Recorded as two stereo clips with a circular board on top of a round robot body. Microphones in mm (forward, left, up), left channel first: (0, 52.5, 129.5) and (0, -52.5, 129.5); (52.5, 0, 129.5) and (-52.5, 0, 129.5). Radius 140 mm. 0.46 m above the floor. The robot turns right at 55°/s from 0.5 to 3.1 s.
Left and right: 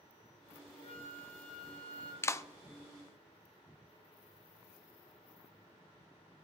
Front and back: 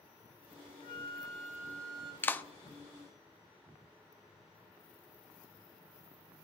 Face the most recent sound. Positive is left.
turn(degrees=100)